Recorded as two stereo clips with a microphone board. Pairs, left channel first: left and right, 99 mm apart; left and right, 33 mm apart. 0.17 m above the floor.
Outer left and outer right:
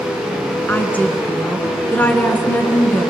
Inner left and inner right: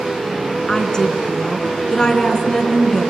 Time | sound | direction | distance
0.7 | a woman speaking | 15° left (ahead or behind) | 2 m